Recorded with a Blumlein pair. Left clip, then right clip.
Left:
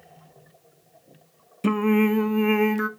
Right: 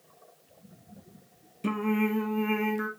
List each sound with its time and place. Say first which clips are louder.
1.6 s singing: left 7 dB; 20° left, 0.6 m